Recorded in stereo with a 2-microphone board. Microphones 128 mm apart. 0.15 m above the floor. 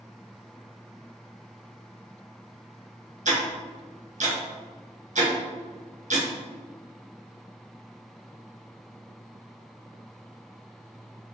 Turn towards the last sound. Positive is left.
turn(degrees=-70)  # may be behind; listen again after turning